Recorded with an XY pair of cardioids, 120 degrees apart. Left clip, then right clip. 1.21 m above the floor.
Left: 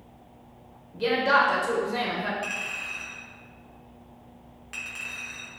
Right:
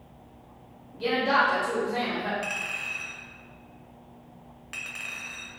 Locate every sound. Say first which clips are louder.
0.9 s a woman speaking: left 2 dB; 25° left, 0.6 m
2.4 s a clink: even; 15° right, 0.7 m